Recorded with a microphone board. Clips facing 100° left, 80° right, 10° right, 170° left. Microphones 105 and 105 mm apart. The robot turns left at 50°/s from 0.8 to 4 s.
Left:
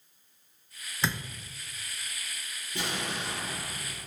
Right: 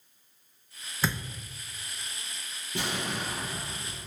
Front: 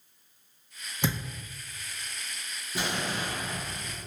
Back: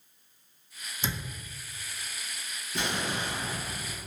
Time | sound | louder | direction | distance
1.0 | a thud | right 1 dB, front 5 dB | 10° left | 0.9 m
2.8 | an explosion | right 2 dB, even | 90° right | 1.3 m